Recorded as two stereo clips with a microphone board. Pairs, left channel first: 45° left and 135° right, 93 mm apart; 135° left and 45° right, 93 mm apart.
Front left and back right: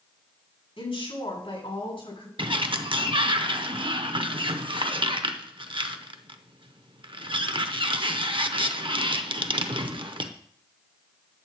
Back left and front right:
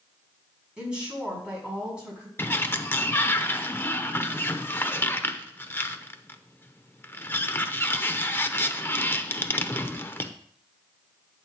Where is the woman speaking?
35° left, 6 m.